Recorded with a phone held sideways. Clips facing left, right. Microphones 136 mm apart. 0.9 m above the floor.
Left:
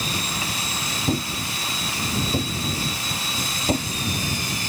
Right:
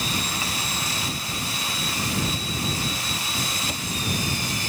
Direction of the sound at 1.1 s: 50° left (ahead or behind).